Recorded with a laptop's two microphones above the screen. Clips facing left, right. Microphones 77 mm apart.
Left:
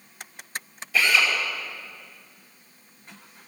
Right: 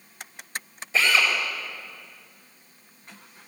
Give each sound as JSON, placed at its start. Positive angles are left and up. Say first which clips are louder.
{"t": 0.9, "sound": "a drill", "louder": "even", "side_deg": -25, "distance_m": 4.5}